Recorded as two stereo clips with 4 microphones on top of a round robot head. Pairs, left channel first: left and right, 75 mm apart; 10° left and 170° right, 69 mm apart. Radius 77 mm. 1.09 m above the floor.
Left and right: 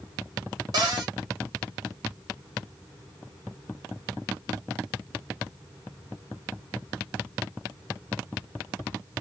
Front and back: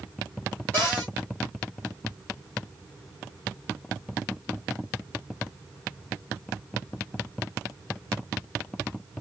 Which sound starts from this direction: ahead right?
A cupboard door, at 0.7 s.